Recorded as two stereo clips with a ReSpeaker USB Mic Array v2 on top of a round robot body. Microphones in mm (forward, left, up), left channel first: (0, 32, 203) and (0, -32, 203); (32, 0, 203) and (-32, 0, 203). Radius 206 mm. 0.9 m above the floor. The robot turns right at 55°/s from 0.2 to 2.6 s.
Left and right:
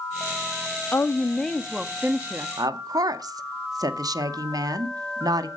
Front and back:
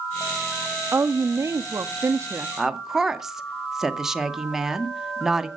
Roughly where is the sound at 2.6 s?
Right.